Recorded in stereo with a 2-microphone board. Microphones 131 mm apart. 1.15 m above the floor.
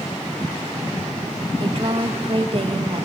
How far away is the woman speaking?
About 1.8 m.